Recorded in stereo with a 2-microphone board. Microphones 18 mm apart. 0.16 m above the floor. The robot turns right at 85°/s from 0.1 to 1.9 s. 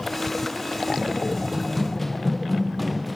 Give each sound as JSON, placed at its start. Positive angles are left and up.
{"t": 1.5, "sound": "running footsteps", "side_deg": -15}